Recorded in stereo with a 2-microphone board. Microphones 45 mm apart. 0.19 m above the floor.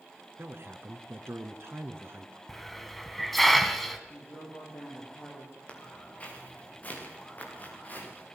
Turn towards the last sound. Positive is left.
turn(degrees=40)  # may be behind; listen again after turning